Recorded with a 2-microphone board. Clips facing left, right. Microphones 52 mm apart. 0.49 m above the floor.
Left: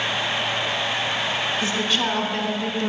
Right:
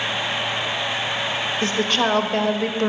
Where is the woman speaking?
60° right (ahead or behind), 1.5 m.